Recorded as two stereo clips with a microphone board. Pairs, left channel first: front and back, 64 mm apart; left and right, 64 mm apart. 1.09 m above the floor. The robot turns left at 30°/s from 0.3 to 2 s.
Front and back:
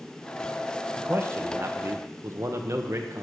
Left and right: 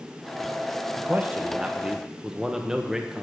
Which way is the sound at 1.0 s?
135° right.